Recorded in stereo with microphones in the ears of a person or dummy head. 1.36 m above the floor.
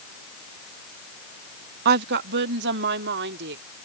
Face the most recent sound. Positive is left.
turn(degrees=-65)  # may be behind; listen again after turning